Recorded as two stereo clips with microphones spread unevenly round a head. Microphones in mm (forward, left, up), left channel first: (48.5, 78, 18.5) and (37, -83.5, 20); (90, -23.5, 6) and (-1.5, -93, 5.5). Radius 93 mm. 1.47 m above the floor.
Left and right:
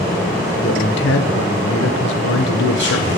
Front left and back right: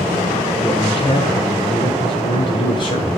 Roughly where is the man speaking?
Left.